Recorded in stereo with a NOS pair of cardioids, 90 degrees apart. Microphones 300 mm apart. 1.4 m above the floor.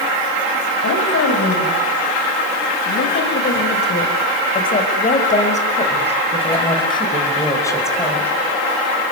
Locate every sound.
0.8 s a woman speaking: 50° left, 7 m; by 8.3 s 5° left, 6.5 m